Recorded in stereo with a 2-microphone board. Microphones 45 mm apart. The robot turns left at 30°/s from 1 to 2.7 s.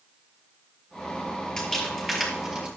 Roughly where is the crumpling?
Centre.